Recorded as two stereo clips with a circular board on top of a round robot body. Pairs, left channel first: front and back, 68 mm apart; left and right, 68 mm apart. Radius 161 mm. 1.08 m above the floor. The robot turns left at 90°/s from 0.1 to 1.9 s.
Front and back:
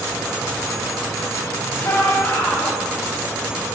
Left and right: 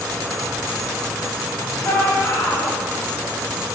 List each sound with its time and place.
1.8 s a shout: 55° left, 7.5 m; by 2.8 s 45° left, 7.5 m